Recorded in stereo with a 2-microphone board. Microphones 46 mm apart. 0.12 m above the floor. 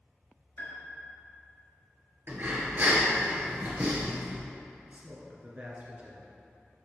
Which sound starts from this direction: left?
A piano, at 0.6 s.